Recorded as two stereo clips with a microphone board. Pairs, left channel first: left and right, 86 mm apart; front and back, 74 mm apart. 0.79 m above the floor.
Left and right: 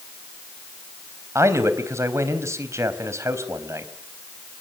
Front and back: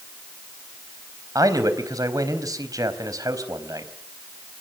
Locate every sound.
1.4 s a man speaking: 145° right, 4 m